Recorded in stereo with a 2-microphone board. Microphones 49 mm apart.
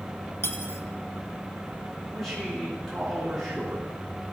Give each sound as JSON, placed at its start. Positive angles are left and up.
{"t": 0.4, "sound": "cutlery clinking", "side_deg": 55, "distance_m": 1.0}
{"t": 2.1, "sound": "a man speaking", "side_deg": 5, "distance_m": 3.0}